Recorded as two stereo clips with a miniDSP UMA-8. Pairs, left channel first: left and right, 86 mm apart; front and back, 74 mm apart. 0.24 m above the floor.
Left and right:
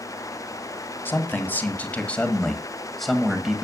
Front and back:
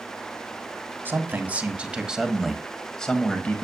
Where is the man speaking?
140° left, 1.6 m; by 3.6 s 20° right, 1.3 m.